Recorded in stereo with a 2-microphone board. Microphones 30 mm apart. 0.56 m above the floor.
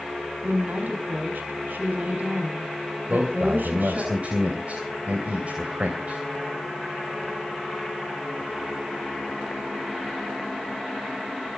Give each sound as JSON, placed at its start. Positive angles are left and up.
{"t": 0.4, "sound": "a woman speaking", "side_deg": -75, "distance_m": 5.0}
{"t": 3.1, "sound": "a man speaking", "side_deg": -50, "distance_m": 3.0}